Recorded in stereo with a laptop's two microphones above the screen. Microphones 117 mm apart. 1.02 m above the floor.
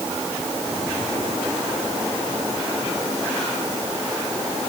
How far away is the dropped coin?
No dropped coin in this recording.